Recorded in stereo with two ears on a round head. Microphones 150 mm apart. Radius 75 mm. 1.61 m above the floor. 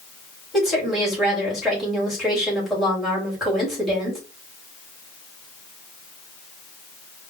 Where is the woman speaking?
Centre (ahead or behind), 3 m.